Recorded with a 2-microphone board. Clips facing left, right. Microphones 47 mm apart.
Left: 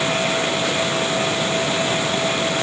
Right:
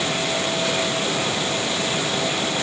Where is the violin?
I don't hear a violin.